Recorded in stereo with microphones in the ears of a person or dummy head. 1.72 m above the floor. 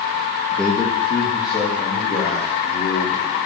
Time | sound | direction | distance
0.5 | a man speaking | 5° right (ahead or behind) | 0.5 m